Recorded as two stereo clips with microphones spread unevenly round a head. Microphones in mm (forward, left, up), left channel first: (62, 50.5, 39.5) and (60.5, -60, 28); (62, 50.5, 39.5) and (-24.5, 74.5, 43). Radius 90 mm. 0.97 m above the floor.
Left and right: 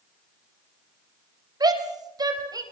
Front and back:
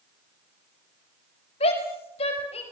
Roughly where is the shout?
Ahead right.